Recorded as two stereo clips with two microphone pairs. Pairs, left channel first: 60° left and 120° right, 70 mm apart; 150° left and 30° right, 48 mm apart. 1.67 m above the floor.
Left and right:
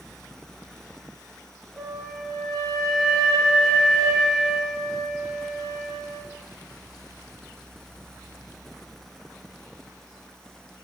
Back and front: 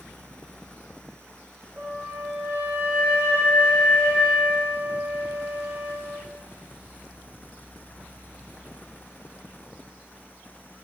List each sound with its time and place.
1.8 s a flute: 25° right, 1.3 m